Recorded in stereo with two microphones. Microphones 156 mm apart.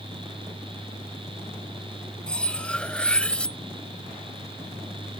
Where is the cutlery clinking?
5° left (ahead or behind).